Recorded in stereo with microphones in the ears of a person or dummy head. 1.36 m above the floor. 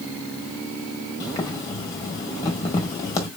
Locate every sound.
1.2 s boiling: 20° left (ahead or behind), 1.6 m